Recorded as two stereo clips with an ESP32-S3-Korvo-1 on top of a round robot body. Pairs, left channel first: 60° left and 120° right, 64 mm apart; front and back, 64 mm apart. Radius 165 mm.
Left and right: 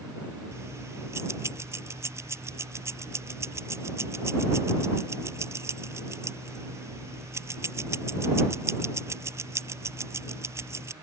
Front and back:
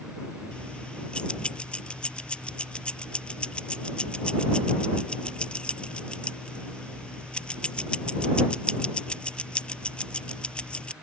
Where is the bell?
I don't hear a bell.